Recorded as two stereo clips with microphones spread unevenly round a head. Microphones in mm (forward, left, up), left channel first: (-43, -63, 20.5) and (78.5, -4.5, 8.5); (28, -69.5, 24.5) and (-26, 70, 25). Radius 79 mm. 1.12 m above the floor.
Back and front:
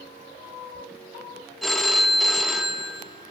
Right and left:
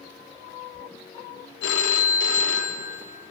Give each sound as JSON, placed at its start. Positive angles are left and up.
{"t": 1.6, "sound": "a phone ringing", "azimuth_deg": -65, "distance_m": 0.6}